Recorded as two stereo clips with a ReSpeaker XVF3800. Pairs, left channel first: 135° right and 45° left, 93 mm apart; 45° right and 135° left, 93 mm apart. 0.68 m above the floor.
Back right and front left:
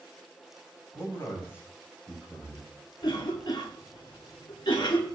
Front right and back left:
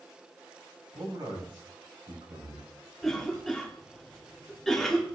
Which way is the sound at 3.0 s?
130° right.